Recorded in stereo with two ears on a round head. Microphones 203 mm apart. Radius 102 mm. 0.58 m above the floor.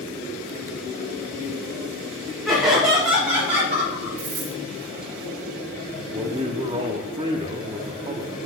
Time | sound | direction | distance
2.5 | laughter | 15° right (ahead or behind) | 2.5 m
4.2 | a dropped coin | 70° right (ahead or behind) | 2 m
6.1 | a man speaking | 25° right (ahead or behind) | 0.7 m